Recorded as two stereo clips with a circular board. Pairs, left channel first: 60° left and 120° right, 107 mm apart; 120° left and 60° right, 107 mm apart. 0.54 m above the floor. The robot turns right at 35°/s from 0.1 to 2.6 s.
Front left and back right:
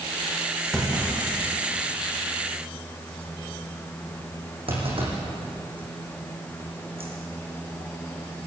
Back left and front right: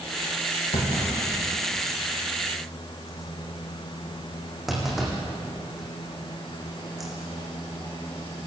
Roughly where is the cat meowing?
I don't hear a cat meowing.